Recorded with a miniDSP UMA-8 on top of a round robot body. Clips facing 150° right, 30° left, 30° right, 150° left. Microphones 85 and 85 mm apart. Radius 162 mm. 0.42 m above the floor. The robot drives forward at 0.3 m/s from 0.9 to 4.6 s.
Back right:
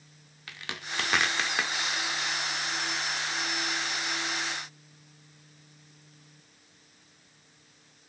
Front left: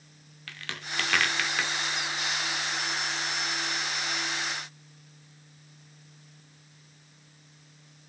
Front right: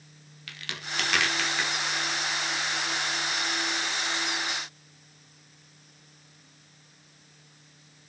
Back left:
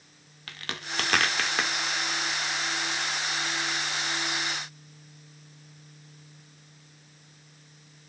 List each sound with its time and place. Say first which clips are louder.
0.5 s a crack: even, back left 1 dB; 145° left, 0.6 m; by 1.7 s 160° left, 0.8 m